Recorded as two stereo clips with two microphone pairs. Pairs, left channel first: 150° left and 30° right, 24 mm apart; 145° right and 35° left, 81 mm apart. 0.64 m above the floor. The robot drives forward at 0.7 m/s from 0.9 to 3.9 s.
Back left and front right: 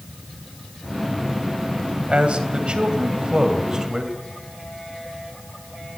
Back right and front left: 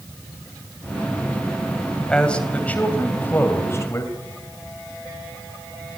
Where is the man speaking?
65° right, 3 m; by 4.1 s 90° right, 3 m.